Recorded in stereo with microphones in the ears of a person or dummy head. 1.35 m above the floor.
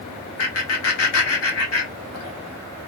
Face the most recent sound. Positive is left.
turn(degrees=80)